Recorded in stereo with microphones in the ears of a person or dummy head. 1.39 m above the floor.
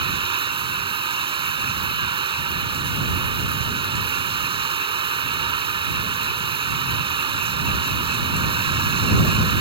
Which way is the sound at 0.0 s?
30° right (ahead or behind).